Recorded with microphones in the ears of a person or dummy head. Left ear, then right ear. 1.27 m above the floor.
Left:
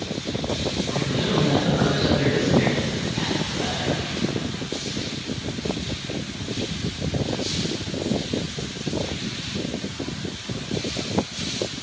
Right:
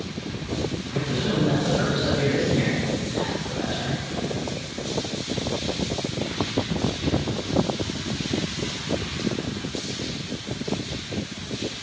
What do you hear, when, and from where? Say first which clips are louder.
0.9 s a man speaking: left 1 dB; 5° right (ahead or behind), 4 m